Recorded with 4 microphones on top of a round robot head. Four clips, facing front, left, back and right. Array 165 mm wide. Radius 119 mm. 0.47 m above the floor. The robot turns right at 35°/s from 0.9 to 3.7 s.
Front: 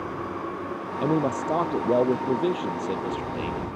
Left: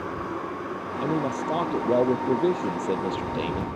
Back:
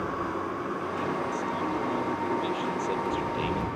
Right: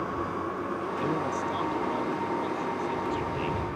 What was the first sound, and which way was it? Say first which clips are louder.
A man speaking: left 5 dB, front 9 dB; 10° left.